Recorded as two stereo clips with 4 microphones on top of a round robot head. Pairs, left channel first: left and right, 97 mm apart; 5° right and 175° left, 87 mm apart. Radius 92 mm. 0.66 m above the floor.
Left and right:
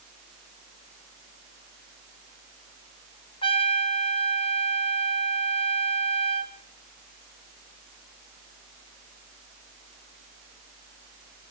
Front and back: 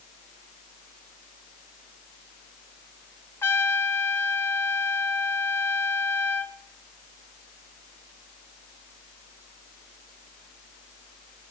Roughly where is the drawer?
I don't hear a drawer.